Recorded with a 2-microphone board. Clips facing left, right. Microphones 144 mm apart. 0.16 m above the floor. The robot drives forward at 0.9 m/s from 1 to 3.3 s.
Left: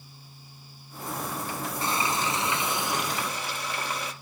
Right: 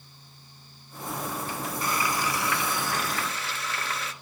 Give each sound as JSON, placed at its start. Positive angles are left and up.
{"t": 1.8, "sound": "frying", "side_deg": 25, "distance_m": 1.1}